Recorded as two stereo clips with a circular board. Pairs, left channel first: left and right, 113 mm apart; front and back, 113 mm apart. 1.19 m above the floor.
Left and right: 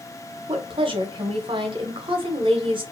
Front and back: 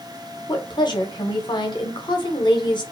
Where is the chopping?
I don't hear chopping.